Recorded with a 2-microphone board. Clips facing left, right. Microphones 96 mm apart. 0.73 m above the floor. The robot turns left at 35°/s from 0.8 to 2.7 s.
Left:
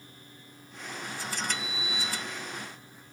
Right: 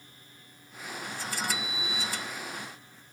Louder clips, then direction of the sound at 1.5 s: Even; 40° left (ahead or behind).